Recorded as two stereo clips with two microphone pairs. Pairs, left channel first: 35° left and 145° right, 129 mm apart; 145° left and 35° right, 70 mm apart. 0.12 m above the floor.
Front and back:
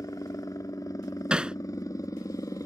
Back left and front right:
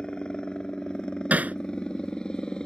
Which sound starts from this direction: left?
A helicopter, at 0.0 s.